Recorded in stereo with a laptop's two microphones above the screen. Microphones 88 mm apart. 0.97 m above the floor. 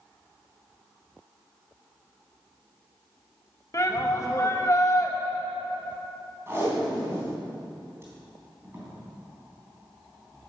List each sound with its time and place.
3.7 s a shout: 35° left (ahead or behind), 1.3 m
6.5 s tape being pulled: 30° right (ahead or behind), 3 m